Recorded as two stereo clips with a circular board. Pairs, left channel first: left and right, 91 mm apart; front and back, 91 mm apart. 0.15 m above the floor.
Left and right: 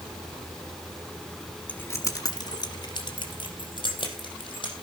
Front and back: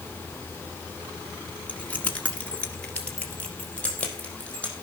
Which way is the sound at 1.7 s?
50° left.